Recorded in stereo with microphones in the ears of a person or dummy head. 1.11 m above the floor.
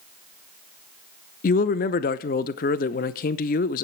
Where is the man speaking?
40° left (ahead or behind), 0.6 m.